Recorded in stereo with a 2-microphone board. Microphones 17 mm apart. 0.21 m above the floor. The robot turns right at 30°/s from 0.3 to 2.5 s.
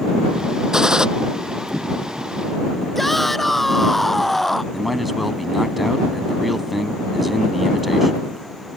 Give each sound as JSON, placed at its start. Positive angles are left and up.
{"t": 0.7, "sound": "a gunshot", "side_deg": -35}
{"t": 3.0, "sound": "a shout", "side_deg": 10}
{"t": 4.7, "sound": "a man speaking", "side_deg": -5}